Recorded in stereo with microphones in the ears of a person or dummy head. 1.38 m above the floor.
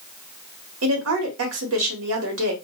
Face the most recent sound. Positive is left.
turn(degrees=-70)  # may be behind; listen again after turning